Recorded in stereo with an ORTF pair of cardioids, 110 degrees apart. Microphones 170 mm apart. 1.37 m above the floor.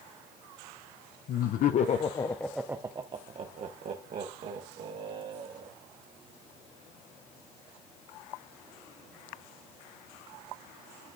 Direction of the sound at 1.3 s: 65° left.